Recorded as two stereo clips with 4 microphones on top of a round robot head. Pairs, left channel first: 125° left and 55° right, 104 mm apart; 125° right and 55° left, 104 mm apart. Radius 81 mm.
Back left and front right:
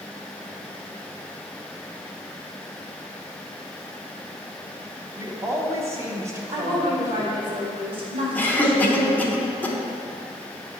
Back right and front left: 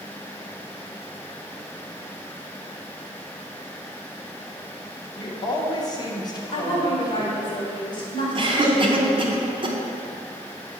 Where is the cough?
55° left, 1.1 m.